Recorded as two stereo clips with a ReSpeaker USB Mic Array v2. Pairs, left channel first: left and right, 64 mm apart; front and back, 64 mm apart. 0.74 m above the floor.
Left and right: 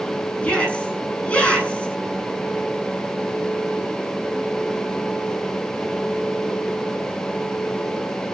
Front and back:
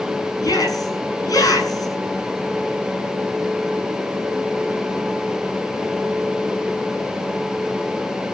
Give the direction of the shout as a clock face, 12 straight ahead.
11 o'clock.